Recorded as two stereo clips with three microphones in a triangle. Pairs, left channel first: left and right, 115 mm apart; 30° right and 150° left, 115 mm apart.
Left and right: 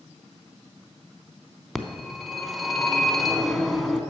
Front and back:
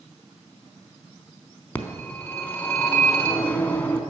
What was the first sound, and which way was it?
A phone ringing, 5° left.